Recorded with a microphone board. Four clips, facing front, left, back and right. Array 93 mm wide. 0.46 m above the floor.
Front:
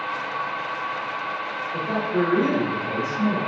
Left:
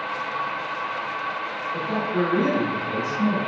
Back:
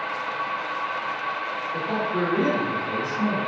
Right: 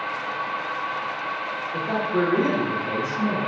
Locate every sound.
1.7 s a man speaking: 70° right, 0.8 m